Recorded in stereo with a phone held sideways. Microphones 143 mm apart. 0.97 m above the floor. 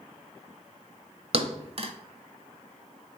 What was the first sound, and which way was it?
A thud, 45° right (ahead or behind).